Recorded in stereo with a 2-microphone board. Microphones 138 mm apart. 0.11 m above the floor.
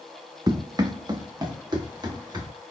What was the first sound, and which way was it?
Running footsteps, 25° right (ahead or behind).